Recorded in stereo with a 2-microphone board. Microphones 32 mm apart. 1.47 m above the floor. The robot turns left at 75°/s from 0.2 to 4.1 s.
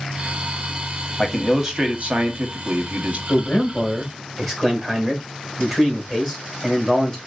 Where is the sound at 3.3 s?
70° left, 1.7 m; by 7.2 s 5° left, 1.7 m.